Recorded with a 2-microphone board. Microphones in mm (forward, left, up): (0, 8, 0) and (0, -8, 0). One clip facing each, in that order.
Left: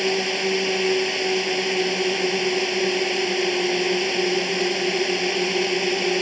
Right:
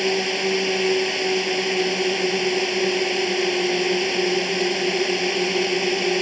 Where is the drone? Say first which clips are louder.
Right 1 dB; centre (ahead or behind).